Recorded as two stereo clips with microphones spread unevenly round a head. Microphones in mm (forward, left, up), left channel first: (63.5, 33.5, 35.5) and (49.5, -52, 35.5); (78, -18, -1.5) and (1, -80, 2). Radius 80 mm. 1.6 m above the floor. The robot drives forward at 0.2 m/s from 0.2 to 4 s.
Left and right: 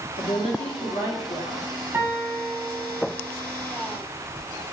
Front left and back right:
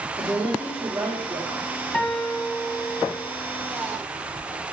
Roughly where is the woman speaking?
Behind left.